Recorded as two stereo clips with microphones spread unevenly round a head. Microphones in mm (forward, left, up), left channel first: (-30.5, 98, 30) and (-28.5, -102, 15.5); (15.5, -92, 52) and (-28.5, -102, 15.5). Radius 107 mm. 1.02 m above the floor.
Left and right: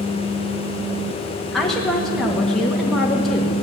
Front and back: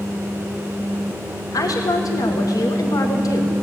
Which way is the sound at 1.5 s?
Straight ahead.